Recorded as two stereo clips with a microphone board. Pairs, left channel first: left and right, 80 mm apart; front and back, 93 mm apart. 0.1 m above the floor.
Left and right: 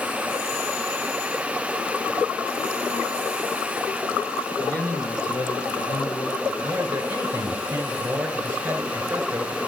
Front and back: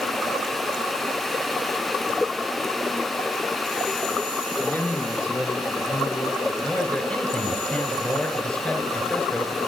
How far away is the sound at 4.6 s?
About 1.2 m.